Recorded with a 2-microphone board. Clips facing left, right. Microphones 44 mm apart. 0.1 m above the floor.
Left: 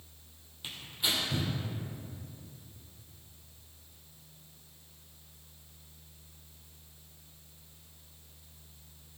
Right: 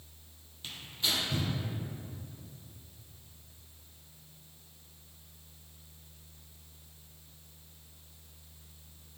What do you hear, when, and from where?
0.6 s tearing paper: 20° left (ahead or behind), 3 m